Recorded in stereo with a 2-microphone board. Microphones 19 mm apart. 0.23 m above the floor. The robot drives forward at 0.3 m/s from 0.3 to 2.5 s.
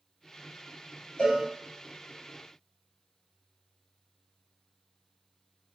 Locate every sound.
1.2 s a cowbell: 75° left (ahead or behind), 1.5 m; by 1.4 s 70° left (ahead or behind), 1.5 m